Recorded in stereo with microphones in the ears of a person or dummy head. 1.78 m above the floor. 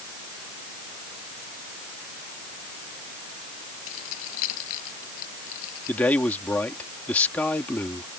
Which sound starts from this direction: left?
Keys jangling, at 3.9 s.